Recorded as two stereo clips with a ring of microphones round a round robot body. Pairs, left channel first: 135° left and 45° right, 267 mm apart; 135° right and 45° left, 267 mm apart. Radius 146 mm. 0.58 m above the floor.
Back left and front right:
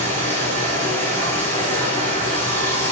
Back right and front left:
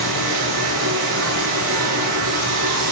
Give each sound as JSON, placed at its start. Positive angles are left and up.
{"t": 0.0, "sound": "running water", "azimuth_deg": 55, "distance_m": 5.5}